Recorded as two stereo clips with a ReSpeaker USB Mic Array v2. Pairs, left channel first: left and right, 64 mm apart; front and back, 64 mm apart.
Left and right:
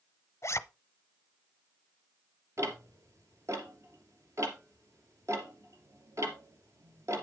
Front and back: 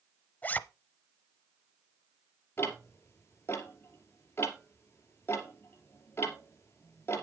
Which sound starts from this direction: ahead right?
Ticking, at 2.6 s.